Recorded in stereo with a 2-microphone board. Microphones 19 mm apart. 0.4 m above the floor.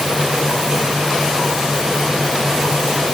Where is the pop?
I don't hear a pop.